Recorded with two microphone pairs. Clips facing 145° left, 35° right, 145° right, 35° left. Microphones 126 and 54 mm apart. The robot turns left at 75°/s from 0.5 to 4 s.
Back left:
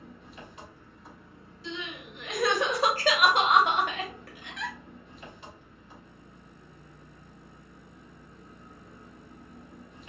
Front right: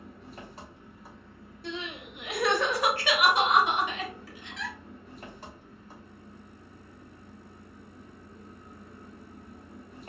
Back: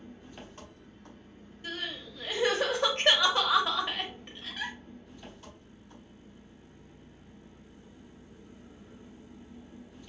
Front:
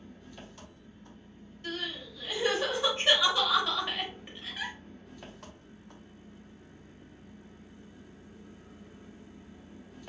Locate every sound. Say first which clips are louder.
0.0 s an engine running: front right 2 dB, back 1 dB; 85° right, 1.0 m; by 10.1 s 15° left, 1.0 m
1.6 s crying: front right 1 dB, front 1 dB; 70° right, 0.9 m; by 4.8 s 115° left, 0.9 m